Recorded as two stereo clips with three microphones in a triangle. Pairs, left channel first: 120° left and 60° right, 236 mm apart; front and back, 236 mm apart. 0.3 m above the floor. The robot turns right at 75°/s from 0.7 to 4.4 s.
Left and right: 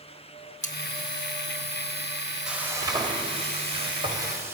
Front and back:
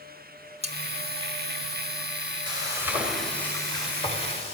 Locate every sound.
0.6 s cutlery clinking: 145° left, 0.7 m; by 0.8 s 150° left, 0.7 m
2.5 s frying: 145° right, 1.6 m; by 4.5 s straight ahead, 1.6 m